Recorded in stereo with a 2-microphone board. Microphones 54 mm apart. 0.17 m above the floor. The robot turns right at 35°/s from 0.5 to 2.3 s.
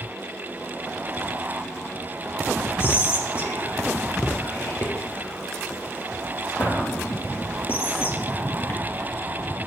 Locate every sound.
2.8 s whispering: 45° left (ahead or behind), 3.5 m